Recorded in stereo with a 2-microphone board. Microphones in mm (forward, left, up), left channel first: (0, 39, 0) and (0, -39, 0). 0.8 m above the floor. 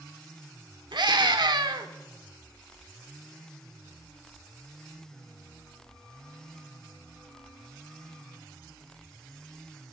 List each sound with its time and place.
0.9 s a scream: 70° right (ahead or behind), 1.8 m